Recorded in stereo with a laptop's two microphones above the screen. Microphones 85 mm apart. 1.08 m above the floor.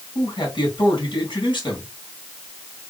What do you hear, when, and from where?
0.1 s a man speaking: 65° left (ahead or behind), 2.5 m